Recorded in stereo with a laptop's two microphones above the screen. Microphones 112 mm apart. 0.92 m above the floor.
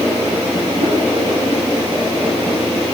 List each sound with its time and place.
0.8 s a whoosh: 75° right (ahead or behind), 8 m